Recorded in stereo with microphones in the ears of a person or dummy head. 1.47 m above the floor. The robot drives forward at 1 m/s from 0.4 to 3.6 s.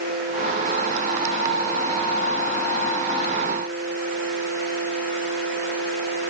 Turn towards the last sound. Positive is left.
No sound to turn to.